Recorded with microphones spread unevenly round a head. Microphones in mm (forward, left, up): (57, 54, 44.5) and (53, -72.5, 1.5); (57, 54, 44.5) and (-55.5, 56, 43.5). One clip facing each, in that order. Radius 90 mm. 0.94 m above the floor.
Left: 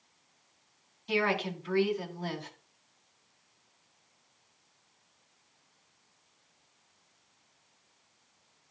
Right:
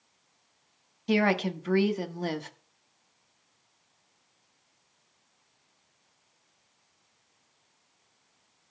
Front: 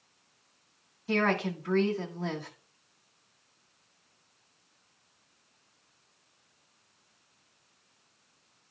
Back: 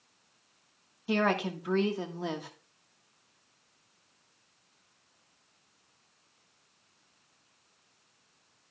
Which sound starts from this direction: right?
A woman speaking, at 1.1 s.